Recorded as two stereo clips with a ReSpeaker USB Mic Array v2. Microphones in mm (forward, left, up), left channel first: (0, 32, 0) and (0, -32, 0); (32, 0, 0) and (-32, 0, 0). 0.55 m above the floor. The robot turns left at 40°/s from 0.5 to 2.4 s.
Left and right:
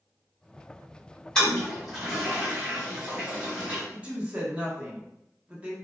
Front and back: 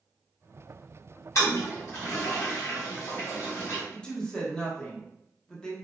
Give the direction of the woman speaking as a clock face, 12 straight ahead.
2 o'clock.